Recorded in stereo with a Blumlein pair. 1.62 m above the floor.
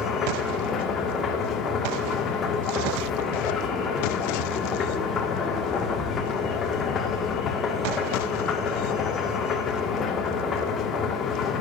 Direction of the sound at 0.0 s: 25° left.